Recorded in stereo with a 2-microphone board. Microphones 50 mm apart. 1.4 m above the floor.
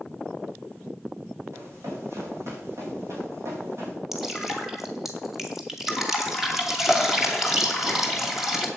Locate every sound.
1.5 s running footsteps: 65° right (ahead or behind), 5 m; by 4.0 s 70° right (ahead or behind), 6.5 m
4.1 s dripping: 5° right (ahead or behind), 2 m